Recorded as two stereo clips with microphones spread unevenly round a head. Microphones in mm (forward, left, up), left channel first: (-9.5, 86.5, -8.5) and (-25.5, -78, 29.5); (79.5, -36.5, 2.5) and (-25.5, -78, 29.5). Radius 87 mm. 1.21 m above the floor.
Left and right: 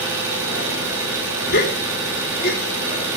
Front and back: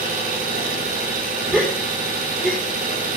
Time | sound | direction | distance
0.0 | an engine running | 170° right | 7.5 m
1.5 | a gasp | 115° left | 4 m